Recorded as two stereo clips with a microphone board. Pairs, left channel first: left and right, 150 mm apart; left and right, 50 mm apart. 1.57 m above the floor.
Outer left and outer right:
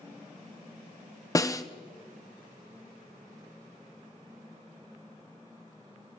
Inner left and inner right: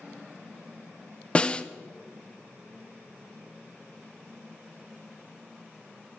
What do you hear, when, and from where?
1.4 s a snare drum: 20° left (ahead or behind), 0.6 m